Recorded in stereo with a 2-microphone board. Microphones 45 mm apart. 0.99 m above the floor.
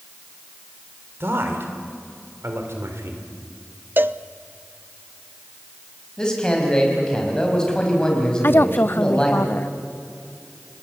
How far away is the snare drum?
I don't hear a snare drum.